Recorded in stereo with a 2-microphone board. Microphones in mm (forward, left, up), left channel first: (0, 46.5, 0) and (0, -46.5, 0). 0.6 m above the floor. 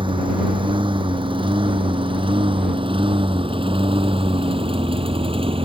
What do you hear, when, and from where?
0.0 s a lawn mower: 65° right (ahead or behind); by 5.7 s 80° right